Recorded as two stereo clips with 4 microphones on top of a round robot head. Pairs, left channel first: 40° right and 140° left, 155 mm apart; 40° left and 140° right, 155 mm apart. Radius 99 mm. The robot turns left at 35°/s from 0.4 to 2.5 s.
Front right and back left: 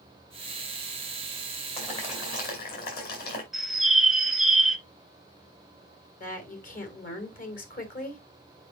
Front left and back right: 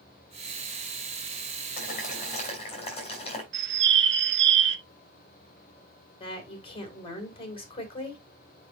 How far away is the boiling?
About 5 m.